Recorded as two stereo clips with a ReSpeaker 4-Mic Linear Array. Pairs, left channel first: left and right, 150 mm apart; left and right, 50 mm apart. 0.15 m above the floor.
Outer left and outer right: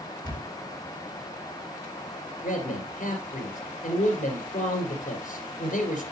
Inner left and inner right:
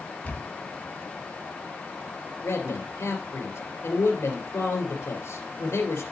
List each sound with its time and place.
0.2 s a camera shutter: 30° left (ahead or behind), 1.6 m
2.4 s a man speaking: 65° left (ahead or behind), 3 m